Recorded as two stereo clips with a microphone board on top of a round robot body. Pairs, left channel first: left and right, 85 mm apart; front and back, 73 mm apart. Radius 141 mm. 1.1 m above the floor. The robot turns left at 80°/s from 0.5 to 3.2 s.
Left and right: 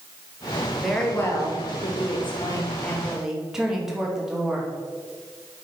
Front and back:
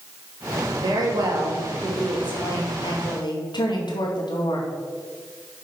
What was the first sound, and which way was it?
A woman speaking, 175° right.